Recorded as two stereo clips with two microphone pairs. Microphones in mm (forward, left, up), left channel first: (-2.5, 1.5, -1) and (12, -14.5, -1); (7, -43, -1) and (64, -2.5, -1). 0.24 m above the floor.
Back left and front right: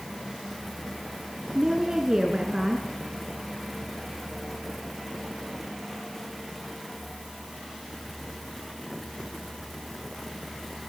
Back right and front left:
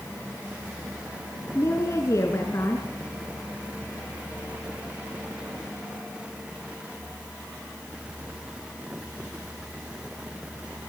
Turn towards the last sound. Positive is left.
turn(degrees=-105)